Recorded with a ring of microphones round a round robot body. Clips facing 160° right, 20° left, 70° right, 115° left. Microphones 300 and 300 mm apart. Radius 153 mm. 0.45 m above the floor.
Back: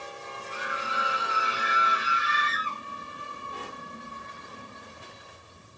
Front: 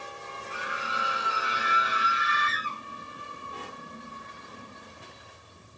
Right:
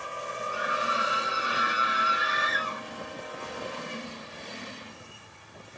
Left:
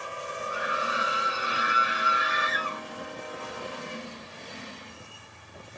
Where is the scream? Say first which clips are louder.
Back 2 dB, even; 45° left, 3 m; by 2.8 s 35° left, 4 m.